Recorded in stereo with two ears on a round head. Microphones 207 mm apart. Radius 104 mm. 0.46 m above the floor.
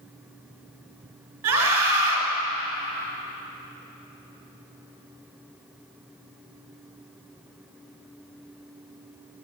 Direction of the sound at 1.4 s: 70° right (ahead or behind).